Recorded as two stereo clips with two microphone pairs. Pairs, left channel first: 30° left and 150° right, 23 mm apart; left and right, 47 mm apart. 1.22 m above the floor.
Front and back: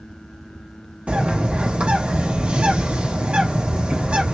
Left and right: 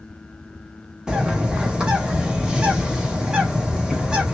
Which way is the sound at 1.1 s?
160° right.